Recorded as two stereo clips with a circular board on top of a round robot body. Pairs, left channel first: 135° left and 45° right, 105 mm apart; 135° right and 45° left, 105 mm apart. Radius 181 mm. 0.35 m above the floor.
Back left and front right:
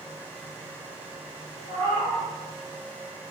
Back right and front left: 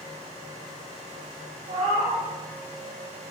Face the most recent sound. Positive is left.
turn(degrees=5)